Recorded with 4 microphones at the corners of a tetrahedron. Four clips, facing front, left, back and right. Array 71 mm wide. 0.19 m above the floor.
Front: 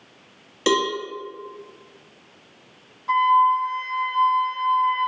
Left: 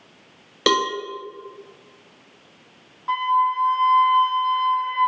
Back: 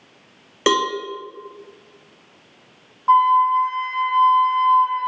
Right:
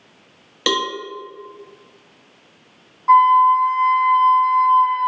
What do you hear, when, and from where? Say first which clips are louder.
0.7 s a cowbell: left 1 dB, back 2 dB; 165° left, 0.6 m
3.1 s a flute: right 9 dB, back 3 dB; 165° right, 1.8 m